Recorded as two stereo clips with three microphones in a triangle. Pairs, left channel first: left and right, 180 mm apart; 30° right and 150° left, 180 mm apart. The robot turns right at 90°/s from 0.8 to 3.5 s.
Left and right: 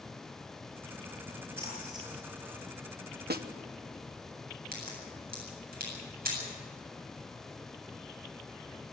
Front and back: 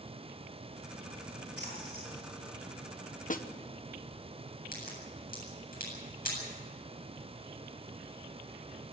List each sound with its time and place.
1.6 s a splash: 150° left, 9.5 m; by 2.1 s 160° right, 9.5 m
3.3 s a snare drum: 70° right, 1.1 m; by 3.5 s 55° right, 1.1 m
4.7 s a crack: 60° right, 8 m